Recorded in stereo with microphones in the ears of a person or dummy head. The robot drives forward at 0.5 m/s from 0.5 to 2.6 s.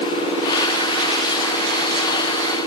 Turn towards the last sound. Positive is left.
No sound to turn to.